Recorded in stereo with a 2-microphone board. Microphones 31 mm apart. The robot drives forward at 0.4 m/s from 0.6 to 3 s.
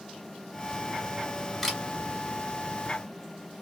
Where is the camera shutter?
Centre (ahead or behind), 1.8 m.